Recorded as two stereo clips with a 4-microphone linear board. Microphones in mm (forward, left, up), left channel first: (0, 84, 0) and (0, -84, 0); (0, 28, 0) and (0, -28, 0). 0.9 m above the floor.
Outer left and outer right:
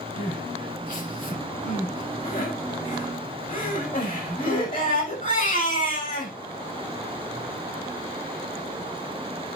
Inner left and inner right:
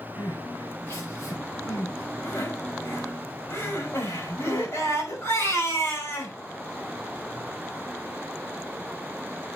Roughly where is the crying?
Left.